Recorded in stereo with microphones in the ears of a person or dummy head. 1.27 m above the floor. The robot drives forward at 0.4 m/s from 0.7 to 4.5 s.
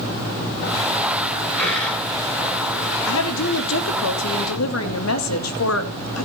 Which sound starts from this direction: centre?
A dropped coin, at 1.6 s.